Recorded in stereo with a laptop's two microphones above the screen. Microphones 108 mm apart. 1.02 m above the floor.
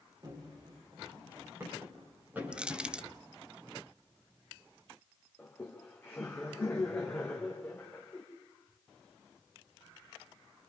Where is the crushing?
10° right (ahead or behind), 0.7 m.